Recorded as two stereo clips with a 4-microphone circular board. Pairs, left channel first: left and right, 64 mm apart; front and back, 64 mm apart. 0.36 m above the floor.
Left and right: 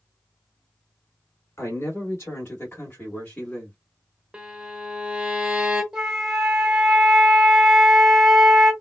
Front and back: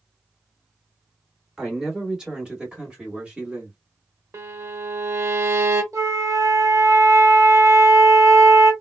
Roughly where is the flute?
Behind.